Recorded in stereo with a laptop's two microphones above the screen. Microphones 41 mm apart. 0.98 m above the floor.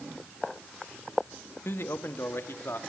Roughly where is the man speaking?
Left.